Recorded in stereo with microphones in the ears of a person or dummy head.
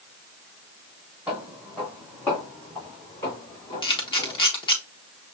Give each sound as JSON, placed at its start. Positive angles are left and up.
{"t": 1.3, "sound": "footsteps", "side_deg": -5, "distance_m": 1.9}
{"t": 3.8, "sound": "a camera shutter", "side_deg": 25, "distance_m": 1.0}